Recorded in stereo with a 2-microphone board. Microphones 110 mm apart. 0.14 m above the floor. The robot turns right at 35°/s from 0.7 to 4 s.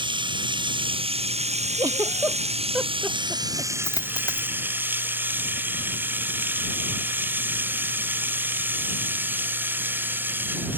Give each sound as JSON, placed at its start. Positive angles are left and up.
{"t": 0.0, "sound": "running water", "azimuth_deg": -130}
{"t": 1.8, "sound": "a giggle", "side_deg": -40}
{"t": 3.8, "sound": "a dropped coin", "side_deg": 35}